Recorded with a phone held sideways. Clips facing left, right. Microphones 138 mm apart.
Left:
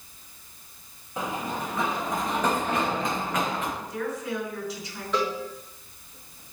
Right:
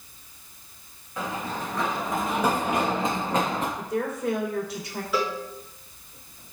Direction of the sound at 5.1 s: 5° right (ahead or behind).